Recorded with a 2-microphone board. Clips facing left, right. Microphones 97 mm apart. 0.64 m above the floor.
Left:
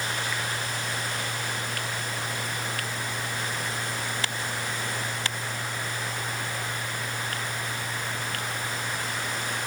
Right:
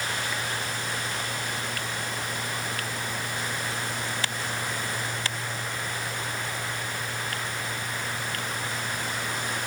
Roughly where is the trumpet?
No trumpet in this recording.